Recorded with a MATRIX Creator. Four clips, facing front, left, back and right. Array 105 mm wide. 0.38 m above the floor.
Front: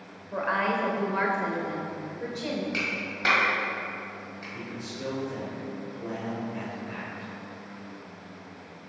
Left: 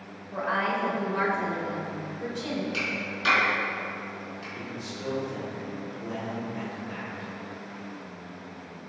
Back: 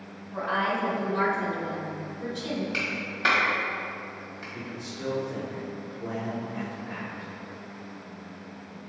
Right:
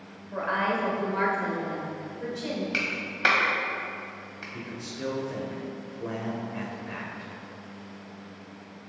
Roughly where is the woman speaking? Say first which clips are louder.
Even, front 1 dB; ahead.